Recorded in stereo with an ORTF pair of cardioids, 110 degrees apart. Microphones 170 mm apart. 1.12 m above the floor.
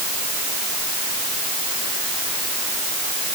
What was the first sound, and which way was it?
Only background noise.